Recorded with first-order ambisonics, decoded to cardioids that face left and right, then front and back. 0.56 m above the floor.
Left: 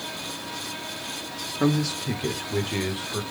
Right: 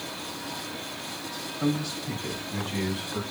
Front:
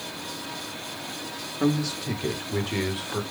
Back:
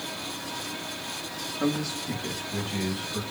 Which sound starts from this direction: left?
A man speaking, at 1.6 s.